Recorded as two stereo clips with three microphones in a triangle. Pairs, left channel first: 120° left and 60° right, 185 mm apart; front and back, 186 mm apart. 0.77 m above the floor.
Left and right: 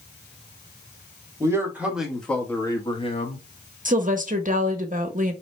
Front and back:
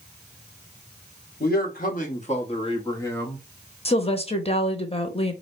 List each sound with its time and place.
1.4 s a man speaking: 10° left, 1.3 m; by 3.5 s 80° left, 1.0 m
3.9 s a woman speaking: 45° right, 0.8 m